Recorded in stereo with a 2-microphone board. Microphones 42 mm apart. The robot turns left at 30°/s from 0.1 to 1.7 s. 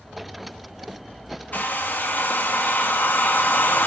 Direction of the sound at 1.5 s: 40° left (ahead or behind).